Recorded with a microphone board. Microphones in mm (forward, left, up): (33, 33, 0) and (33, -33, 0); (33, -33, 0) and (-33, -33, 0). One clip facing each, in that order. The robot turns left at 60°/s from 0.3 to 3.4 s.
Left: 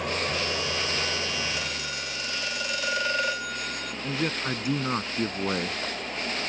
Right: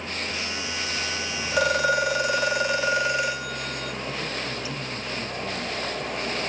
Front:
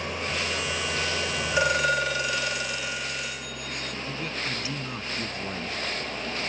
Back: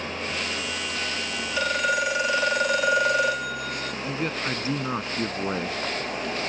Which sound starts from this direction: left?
An engine running, at 0.0 s.